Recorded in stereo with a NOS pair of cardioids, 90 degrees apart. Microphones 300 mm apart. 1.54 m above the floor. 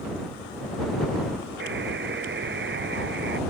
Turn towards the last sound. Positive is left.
turn(degrees=-40)